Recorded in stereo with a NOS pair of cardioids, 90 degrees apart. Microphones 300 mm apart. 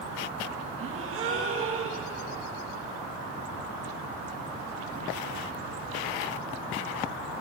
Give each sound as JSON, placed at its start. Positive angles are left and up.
{"t": 0.8, "sound": "a gasp", "azimuth_deg": -45, "distance_m": 1.5}